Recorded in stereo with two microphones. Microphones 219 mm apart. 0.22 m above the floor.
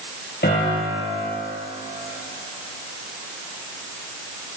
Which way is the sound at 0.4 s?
50° left (ahead or behind).